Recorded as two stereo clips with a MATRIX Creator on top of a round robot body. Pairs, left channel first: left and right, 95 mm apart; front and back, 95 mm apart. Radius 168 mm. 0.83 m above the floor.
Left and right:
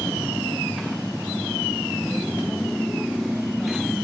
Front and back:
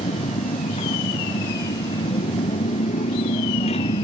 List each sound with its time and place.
0.0 s a motorcycle: straight ahead; by 4.0 s 5° right